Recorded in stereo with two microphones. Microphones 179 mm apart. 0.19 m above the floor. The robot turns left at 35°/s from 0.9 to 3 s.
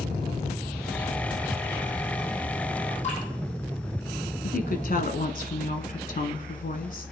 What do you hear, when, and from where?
3.0 s dripping: 40° left (ahead or behind), 7.5 m
4.4 s a woman speaking: 55° left (ahead or behind), 1.6 m